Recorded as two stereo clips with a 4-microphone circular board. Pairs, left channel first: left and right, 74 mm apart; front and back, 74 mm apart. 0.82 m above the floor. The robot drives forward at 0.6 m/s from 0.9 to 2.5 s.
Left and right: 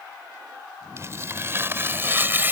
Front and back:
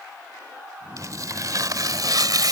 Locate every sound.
1.0 s tearing paper: 140° right; by 2.5 s 150° right